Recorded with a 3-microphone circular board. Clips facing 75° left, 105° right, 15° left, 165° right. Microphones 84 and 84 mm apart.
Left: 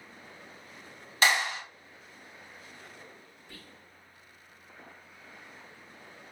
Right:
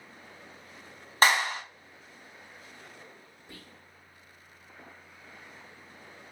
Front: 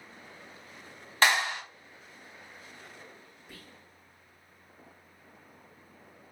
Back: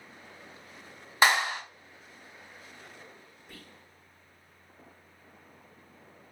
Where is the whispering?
70° right, 0.8 m.